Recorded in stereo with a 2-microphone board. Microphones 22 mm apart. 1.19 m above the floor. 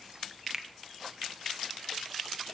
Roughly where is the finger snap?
Right.